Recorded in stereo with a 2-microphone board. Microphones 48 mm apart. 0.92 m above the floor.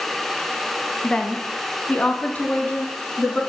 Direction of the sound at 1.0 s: 15° left (ahead or behind).